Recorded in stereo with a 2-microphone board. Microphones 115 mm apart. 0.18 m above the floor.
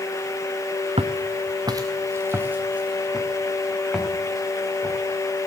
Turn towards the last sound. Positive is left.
turn(degrees=0)  # may be behind; listen again after turning